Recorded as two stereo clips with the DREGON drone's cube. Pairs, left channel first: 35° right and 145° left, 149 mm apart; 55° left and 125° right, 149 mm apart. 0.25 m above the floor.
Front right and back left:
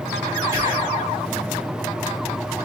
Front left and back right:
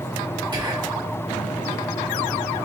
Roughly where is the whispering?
Behind.